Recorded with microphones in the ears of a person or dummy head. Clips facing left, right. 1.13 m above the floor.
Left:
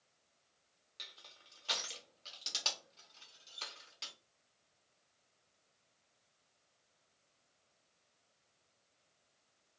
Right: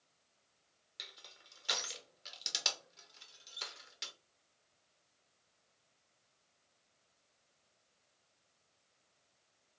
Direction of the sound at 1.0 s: 15° right (ahead or behind).